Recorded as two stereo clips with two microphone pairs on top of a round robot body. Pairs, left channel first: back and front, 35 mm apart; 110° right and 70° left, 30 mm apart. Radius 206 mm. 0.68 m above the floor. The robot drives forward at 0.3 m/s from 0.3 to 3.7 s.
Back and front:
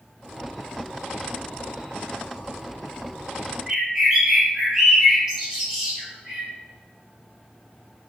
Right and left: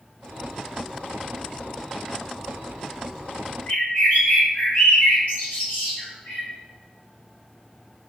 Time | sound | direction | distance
3.7 | a bird | 90° right | 1.6 m